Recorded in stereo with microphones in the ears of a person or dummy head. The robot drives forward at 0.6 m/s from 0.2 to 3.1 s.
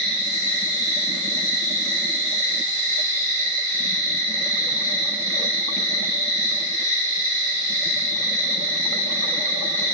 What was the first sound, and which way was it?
An insect, 25° left (ahead or behind).